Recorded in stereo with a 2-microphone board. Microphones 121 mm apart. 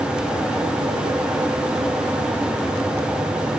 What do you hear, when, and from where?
Only background noise.